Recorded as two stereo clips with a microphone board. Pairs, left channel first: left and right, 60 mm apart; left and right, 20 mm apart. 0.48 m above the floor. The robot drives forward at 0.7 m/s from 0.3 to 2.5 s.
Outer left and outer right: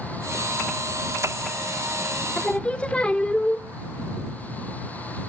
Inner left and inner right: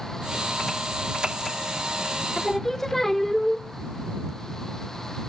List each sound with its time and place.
2.4 s singing: 20° left (ahead or behind), 0.6 m; by 3.6 s 15° left (ahead or behind), 0.7 m